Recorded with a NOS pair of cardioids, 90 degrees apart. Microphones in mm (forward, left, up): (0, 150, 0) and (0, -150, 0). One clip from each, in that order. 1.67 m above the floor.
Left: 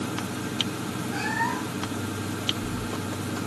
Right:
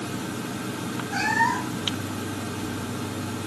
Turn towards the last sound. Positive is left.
turn(degrees=-40)